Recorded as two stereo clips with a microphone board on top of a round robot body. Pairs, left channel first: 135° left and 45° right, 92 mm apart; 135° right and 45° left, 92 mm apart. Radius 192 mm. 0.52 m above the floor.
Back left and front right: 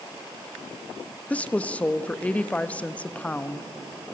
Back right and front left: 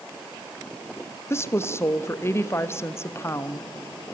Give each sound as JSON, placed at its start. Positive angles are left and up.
{"t": 1.3, "sound": "a woman speaking", "azimuth_deg": -165, "distance_m": 1.2}